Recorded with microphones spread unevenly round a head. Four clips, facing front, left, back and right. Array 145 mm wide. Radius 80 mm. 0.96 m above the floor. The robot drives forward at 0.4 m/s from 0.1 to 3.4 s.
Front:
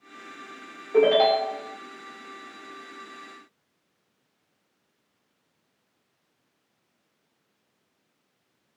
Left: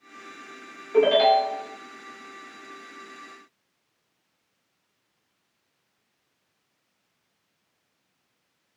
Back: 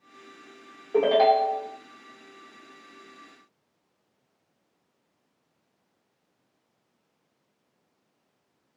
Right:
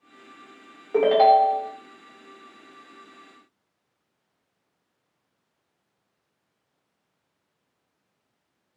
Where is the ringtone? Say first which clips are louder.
Right 2 dB, front 1 dB; 120° right, 0.8 m; by 1.7 s 135° right, 1.0 m.